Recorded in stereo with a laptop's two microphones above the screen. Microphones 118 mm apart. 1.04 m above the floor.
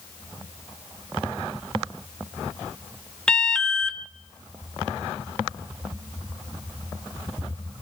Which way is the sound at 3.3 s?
5° left (ahead or behind).